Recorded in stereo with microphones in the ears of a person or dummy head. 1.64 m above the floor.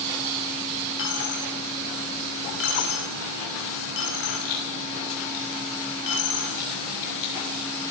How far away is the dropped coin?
About 2 m.